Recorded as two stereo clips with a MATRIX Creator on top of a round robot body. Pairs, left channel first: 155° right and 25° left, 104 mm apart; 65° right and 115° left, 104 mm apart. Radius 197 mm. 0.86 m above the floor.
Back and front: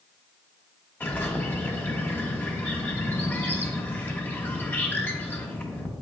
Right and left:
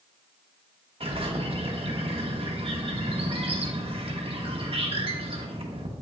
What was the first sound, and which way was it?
A bird, 130° left.